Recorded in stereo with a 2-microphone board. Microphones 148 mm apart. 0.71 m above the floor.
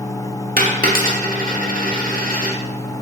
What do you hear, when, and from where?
0.6 s a dropped coin: 75° right (ahead or behind), 0.9 m